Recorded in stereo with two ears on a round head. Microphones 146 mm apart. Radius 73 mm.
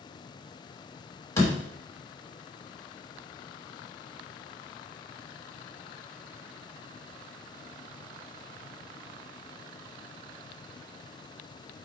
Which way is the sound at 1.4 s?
20° left (ahead or behind).